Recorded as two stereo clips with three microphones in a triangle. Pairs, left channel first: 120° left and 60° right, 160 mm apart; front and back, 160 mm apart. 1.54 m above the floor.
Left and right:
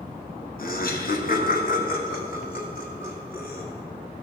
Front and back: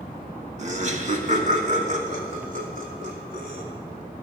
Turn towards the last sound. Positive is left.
turn(degrees=145)